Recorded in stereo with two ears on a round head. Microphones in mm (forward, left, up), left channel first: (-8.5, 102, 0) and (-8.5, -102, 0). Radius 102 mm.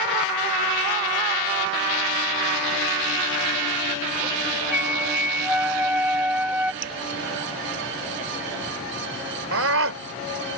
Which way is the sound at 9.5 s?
65° right (ahead or behind).